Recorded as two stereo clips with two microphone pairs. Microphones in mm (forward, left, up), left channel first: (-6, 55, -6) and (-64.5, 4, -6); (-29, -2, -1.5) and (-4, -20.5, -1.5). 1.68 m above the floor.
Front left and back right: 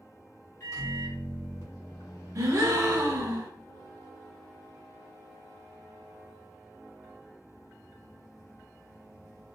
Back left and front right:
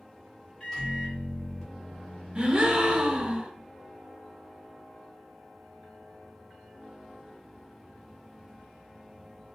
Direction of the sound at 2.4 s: 100° right.